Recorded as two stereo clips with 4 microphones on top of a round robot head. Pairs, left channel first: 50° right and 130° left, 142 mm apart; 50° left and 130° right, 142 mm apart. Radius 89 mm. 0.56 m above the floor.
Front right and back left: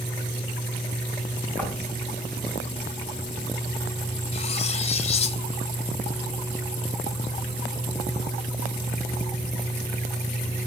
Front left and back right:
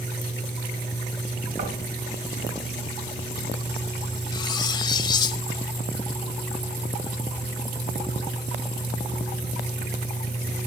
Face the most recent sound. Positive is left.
turn(degrees=-5)